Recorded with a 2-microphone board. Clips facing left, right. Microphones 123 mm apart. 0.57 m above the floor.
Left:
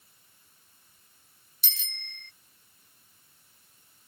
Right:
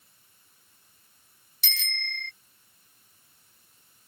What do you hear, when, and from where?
1.6 s a bicycle bell: 75° right (ahead or behind)